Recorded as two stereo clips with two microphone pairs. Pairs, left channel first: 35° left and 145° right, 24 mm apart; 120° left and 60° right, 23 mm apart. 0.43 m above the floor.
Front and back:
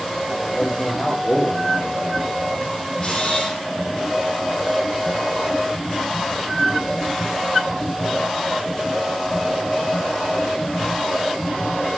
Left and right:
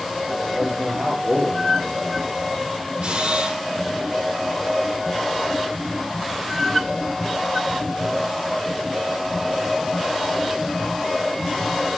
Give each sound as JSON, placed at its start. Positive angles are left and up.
{"t": 0.5, "sound": "a man speaking", "azimuth_deg": -50, "distance_m": 8.5}
{"t": 3.0, "sound": "a camera shutter", "azimuth_deg": -30, "distance_m": 6.5}